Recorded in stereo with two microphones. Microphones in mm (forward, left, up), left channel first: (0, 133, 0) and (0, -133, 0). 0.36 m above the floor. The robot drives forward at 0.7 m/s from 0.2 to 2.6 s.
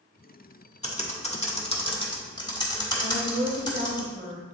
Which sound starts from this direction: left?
Typing on a keyboard, at 0.8 s.